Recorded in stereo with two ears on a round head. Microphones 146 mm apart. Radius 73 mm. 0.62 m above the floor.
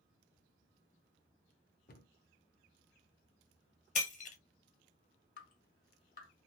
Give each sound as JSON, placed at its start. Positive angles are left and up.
{"t": 1.9, "sound": "a cupboard door", "side_deg": 50, "distance_m": 0.6}
{"t": 4.0, "sound": "breaking glass", "side_deg": 45, "distance_m": 1.4}
{"t": 5.4, "sound": "dripping", "side_deg": 50, "distance_m": 1.2}